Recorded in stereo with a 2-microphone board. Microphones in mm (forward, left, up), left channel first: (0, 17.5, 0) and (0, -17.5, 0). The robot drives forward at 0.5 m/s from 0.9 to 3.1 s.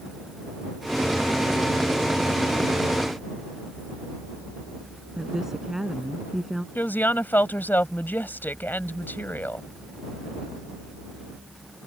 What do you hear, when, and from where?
5.2 s a woman speaking: 15° right (ahead or behind)
6.8 s a woman speaking: 65° left (ahead or behind)